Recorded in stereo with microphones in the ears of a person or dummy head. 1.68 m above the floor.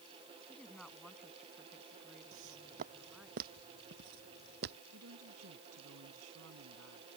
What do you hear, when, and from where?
0.5 s a woman speaking: centre (ahead or behind); by 3.3 s 5° right (ahead or behind)
2.3 s footsteps: 40° right (ahead or behind); by 4.8 s 55° right (ahead or behind)
4.9 s a woman speaking: 90° right